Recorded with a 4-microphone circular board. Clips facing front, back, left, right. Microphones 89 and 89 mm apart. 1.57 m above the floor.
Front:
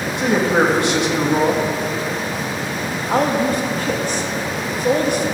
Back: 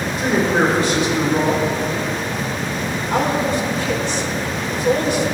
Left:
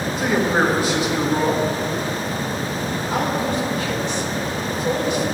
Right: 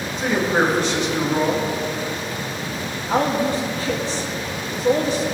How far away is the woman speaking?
About 2.5 m.